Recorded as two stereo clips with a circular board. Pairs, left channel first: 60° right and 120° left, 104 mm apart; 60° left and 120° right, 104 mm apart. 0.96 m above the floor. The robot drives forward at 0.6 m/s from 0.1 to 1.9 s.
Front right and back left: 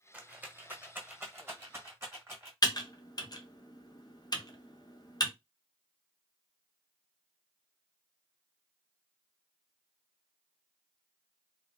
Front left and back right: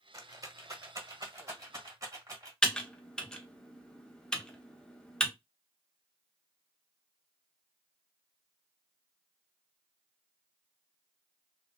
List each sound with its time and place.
0.1 s a rattle: 165° right, 0.7 m; by 2.5 s 175° right, 1.7 m
2.6 s typing on a keyboard: 20° right, 0.7 m